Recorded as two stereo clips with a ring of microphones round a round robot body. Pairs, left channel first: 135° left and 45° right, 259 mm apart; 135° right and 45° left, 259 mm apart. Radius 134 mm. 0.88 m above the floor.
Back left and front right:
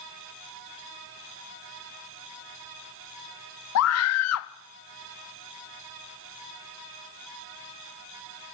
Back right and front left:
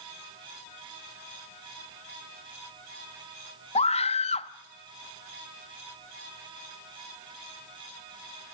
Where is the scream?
160° left, 1.3 m.